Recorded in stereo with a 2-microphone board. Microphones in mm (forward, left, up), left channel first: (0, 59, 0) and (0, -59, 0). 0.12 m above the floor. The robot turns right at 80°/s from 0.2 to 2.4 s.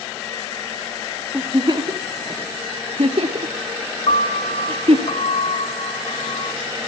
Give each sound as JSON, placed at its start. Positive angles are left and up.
{"t": 1.3, "sound": "a giggle", "side_deg": -15, "distance_m": 1.0}
{"t": 4.1, "sound": "a piano", "side_deg": 75, "distance_m": 1.0}